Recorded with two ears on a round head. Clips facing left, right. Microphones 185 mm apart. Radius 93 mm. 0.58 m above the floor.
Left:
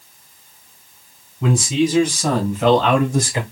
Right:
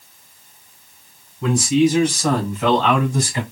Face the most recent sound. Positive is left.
turn(degrees=55)  # may be behind; listen again after turning